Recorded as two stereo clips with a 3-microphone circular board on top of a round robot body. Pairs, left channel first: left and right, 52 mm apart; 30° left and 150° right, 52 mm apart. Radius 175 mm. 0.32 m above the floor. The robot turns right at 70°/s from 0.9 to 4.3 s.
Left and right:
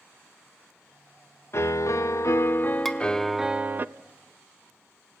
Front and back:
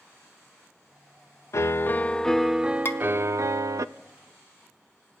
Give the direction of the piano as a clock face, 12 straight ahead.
10 o'clock.